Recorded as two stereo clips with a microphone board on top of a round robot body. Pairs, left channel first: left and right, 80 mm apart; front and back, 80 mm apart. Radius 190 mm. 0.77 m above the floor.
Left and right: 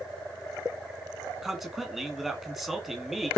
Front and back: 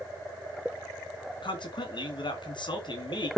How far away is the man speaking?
About 2 m.